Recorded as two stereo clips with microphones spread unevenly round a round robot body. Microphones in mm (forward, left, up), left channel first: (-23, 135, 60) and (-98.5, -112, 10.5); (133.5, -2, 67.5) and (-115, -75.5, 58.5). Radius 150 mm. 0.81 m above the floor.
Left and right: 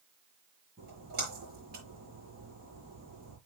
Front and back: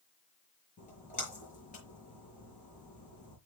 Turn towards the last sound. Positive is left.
turn(degrees=-45)